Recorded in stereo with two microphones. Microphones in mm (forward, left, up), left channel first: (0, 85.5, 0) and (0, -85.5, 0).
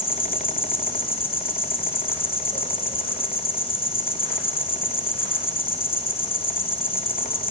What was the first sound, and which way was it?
An insect, 30° left (ahead or behind).